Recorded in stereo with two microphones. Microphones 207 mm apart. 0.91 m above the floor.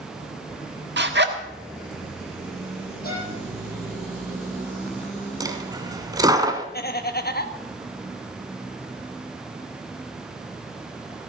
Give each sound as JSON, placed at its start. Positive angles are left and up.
{"t": 1.0, "sound": "a zipper", "side_deg": -60, "distance_m": 1.4}
{"t": 3.0, "sound": "a violin", "side_deg": 50, "distance_m": 9.0}
{"t": 5.4, "sound": "a dropped coin", "side_deg": -20, "distance_m": 1.2}
{"t": 6.7, "sound": "laughter", "side_deg": 50, "distance_m": 1.1}